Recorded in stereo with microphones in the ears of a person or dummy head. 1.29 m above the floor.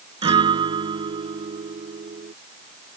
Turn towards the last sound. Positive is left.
turn(degrees=-25)  # may be behind; listen again after turning